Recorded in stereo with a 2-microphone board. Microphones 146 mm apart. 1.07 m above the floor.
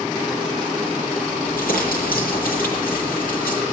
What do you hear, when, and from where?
1.4 s crumpling: 85° left, 9 m